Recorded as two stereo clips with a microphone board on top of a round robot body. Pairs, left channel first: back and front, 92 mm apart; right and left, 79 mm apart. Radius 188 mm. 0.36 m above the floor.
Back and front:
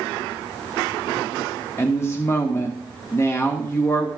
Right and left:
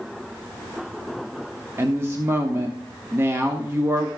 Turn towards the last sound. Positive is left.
turn(degrees=130)